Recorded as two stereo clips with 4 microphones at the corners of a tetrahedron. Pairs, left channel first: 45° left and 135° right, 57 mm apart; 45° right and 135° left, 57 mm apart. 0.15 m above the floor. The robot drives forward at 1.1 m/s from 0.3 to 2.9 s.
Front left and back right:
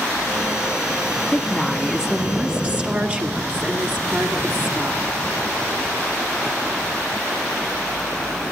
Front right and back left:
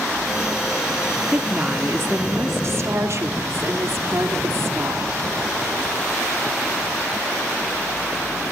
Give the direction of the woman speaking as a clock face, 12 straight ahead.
9 o'clock.